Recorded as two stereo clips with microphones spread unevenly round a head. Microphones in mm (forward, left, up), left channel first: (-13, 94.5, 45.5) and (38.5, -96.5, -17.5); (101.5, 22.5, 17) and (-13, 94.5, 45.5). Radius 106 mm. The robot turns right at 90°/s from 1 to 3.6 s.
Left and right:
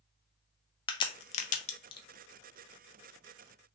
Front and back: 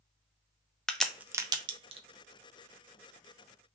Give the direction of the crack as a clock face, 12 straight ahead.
10 o'clock.